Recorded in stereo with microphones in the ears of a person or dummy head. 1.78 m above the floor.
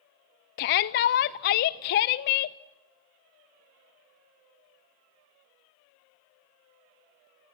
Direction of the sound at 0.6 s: 45° left (ahead or behind).